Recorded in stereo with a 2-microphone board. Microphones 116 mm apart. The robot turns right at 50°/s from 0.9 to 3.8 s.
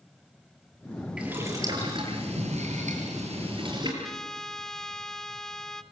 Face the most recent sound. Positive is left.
turn(degrees=5)  # may be behind; listen again after turning